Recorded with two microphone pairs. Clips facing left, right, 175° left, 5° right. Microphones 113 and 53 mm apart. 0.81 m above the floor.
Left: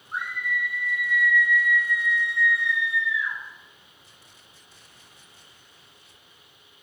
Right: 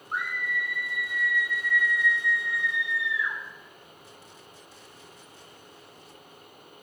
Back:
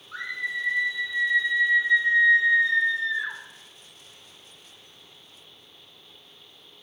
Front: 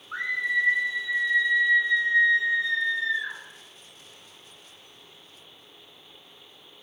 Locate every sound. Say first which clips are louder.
0.1 s a scream: left 1 dB, front 5 dB; 65° right, 3 m; by 3.4 s 150° right, 3.5 m